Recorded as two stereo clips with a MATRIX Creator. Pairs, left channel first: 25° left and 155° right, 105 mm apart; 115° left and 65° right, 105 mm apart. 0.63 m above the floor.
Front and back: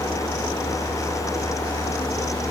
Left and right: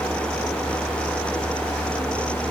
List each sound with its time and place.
Only background noise.